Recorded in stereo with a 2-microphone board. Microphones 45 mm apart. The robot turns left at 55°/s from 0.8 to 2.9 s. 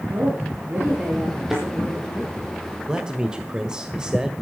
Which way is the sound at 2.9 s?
20° right (ahead or behind).